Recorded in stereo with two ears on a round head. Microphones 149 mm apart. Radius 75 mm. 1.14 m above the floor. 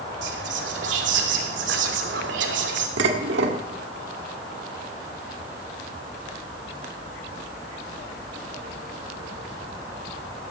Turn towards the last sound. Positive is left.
turn(degrees=-80)